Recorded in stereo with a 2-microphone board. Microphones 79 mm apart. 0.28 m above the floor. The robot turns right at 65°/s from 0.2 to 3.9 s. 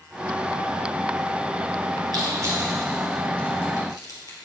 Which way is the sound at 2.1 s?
60° right (ahead or behind).